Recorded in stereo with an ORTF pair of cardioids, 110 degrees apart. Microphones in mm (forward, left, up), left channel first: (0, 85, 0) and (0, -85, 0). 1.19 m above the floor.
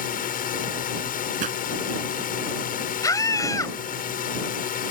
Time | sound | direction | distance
0.0 | a drone | 55° left | ?
1.4 | a pop | 50° right | ?
3.0 | a scream | 20° left | ?